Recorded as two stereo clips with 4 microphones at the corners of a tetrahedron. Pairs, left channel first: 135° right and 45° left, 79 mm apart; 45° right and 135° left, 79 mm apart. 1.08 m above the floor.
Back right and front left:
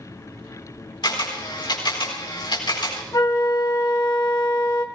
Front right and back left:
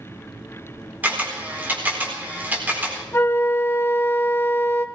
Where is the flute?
100° right, 1.5 m.